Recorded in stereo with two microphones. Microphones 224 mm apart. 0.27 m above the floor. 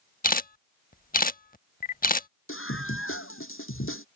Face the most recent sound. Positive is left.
turn(degrees=65)  # may be behind; listen again after turning